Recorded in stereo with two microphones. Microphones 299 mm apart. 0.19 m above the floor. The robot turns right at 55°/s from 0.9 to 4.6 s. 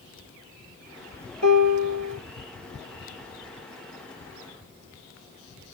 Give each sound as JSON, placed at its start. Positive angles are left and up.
{"t": 1.4, "sound": "a piano", "azimuth_deg": -110, "distance_m": 1.2}